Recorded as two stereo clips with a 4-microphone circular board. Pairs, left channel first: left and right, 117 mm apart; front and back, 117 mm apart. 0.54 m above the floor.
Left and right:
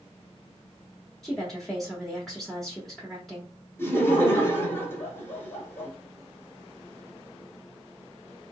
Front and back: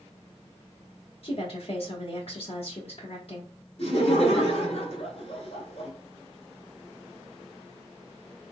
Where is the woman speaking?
Straight ahead, 1.2 m.